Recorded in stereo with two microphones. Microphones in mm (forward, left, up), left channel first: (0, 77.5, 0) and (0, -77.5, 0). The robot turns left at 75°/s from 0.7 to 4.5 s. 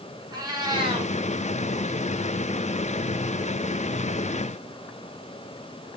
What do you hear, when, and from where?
0.3 s a cat meowing: 25° right (ahead or behind), 4.5 m; by 1.1 s 55° right (ahead or behind), 4.5 m